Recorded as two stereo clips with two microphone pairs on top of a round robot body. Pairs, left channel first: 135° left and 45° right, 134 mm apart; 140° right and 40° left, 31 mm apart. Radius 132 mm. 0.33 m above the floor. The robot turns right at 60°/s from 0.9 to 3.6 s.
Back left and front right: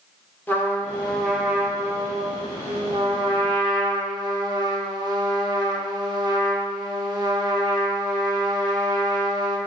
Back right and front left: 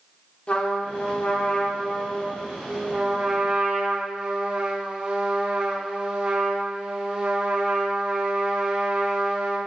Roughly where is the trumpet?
Behind.